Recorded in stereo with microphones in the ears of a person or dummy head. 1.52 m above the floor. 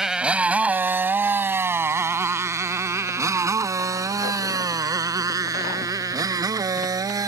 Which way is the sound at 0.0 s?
5° right (ahead or behind).